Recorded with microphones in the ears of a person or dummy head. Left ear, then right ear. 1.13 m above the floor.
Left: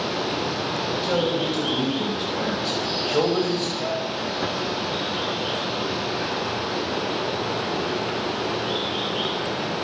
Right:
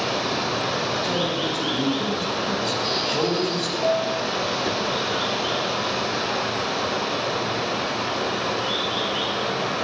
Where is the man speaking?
10° left (ahead or behind), 5.5 m.